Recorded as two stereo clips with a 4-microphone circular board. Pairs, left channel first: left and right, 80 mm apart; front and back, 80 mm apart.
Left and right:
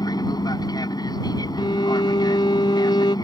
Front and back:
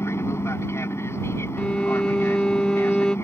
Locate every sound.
0.0 s an aircraft: 55° left
1.6 s a violin: 80° left